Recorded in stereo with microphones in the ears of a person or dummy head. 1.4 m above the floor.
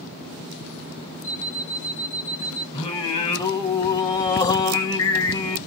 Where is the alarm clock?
60° left (ahead or behind), 1.0 m.